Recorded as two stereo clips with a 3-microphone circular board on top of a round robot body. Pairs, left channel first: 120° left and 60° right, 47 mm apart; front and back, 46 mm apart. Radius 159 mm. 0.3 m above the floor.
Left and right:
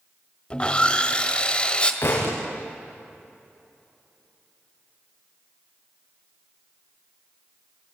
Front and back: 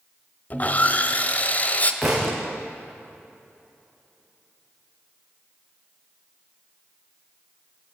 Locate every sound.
0.5 s sawing: 55° left, 1.7 m
2.0 s a thud: 90° left, 6 m